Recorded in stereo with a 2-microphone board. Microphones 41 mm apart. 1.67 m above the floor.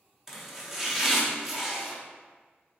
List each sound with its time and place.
0.3 s chopping: 10° right (ahead or behind), 0.7 m